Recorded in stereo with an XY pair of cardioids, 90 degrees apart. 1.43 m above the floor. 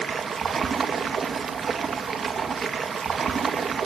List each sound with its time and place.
0.0 s running water: 55° right, 1.7 m